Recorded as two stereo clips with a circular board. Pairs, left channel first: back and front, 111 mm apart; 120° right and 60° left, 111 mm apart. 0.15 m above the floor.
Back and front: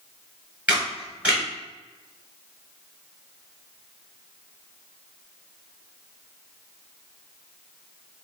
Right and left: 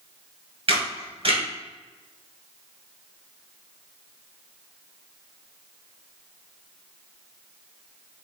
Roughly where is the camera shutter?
Left.